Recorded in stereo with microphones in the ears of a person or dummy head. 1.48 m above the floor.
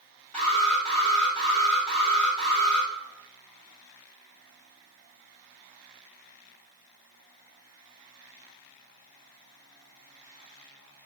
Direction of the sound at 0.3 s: 10° left (ahead or behind).